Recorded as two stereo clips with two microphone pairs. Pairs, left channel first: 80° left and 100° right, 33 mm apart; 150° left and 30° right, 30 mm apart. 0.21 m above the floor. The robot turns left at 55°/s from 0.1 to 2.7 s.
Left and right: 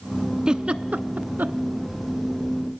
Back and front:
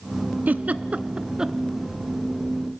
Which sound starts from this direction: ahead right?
A giggle, at 0.5 s.